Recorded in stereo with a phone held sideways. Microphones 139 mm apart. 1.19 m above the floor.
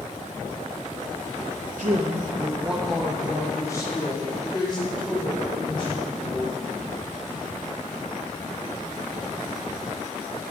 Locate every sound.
1.8 s a woman speaking: 65° right (ahead or behind), 0.9 m; by 6.5 s 40° left (ahead or behind), 4.5 m